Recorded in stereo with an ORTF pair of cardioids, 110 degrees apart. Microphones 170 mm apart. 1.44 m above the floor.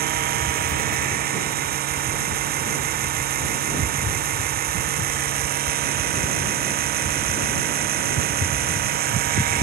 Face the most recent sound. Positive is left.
turn(degrees=-65)